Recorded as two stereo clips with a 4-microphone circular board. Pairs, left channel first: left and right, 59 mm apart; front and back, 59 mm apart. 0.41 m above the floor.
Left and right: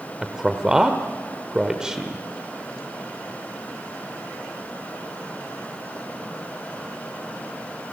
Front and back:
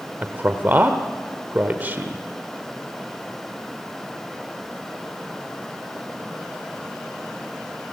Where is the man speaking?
160° right, 1.2 m.